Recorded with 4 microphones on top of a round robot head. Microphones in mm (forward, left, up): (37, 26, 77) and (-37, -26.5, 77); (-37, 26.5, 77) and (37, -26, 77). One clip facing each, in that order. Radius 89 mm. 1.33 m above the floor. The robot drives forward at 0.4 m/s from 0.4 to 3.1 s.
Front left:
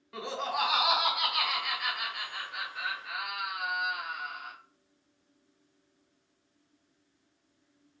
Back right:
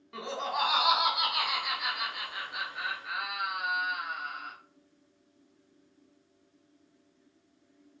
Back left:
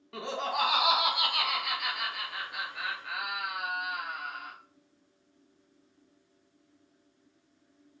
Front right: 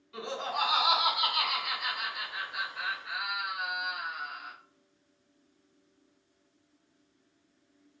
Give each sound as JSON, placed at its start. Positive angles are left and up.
{"t": 0.1, "sound": "laughter", "azimuth_deg": 125, "distance_m": 1.8}